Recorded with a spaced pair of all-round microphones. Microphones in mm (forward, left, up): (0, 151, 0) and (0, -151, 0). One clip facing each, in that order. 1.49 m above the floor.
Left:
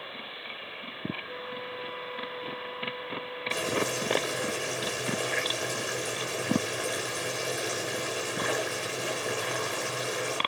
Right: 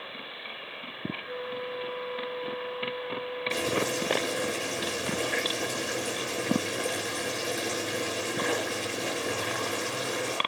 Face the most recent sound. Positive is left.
turn(degrees=-45)  # may be behind; listen again after turning